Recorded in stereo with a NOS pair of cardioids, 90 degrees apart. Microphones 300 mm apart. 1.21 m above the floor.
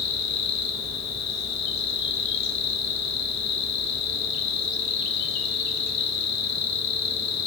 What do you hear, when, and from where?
0.0 s an insect: 60° left, 1.9 m